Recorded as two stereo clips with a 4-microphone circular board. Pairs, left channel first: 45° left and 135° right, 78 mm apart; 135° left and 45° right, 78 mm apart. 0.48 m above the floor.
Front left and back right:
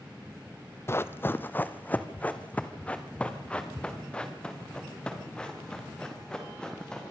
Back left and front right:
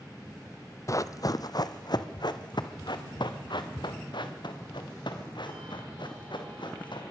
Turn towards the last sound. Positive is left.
turn(degrees=125)